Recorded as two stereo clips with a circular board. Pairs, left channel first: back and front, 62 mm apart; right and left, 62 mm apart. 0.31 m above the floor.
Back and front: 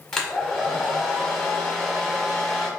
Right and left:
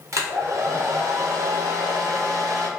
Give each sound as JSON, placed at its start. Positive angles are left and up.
{"t": 0.1, "sound": "a hair dryer", "azimuth_deg": 100, "distance_m": 1.2}